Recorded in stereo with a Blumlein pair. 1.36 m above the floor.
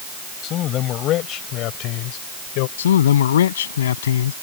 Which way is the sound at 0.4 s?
30° left.